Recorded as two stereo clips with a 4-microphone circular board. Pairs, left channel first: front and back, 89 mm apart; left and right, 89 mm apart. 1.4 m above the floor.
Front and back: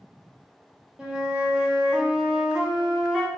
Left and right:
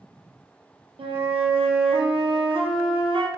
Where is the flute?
100° right, 0.5 m.